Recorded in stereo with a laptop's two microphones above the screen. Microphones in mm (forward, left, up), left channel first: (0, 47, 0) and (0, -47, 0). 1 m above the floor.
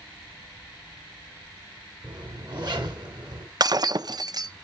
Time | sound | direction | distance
2.0 | a zipper | 55° right (ahead or behind) | 4.5 m
3.6 | breaking glass | 50° right (ahead or behind) | 0.6 m